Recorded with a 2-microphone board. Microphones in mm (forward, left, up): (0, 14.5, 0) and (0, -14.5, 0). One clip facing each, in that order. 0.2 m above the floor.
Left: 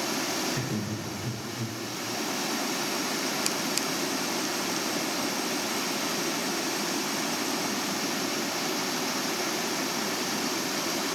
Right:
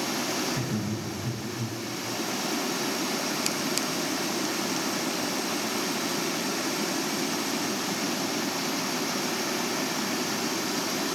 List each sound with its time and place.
0.5 s laughter: 15° right (ahead or behind), 1.2 m; by 1.8 s 30° left (ahead or behind), 1.5 m